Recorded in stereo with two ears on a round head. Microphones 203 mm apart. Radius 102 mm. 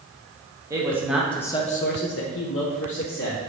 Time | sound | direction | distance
0.7 | a man speaking | 15° right (ahead or behind) | 1.1 m